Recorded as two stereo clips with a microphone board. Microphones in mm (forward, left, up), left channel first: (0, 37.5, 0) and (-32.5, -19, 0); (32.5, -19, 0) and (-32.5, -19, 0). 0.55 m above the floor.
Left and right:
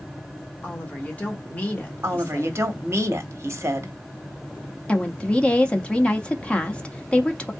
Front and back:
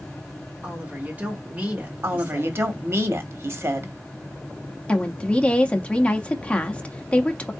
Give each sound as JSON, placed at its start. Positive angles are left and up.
{"t": 0.6, "sound": "a woman speaking", "azimuth_deg": 120, "distance_m": 1.6}
{"t": 2.0, "sound": "a woman speaking", "azimuth_deg": -155, "distance_m": 1.2}
{"t": 4.9, "sound": "a woman speaking", "azimuth_deg": 30, "distance_m": 0.7}